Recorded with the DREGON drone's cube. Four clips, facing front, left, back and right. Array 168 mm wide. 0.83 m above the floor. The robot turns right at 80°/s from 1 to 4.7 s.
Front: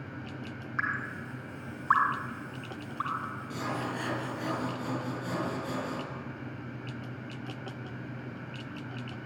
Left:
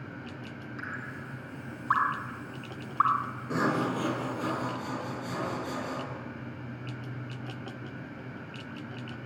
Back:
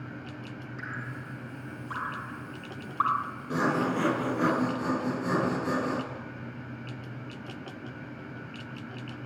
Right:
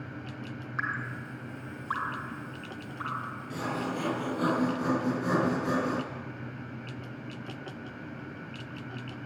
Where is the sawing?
130° left, 3 m; by 6.0 s 135° right, 3 m.